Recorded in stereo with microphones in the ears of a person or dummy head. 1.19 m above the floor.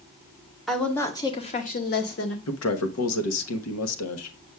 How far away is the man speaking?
About 1.1 m.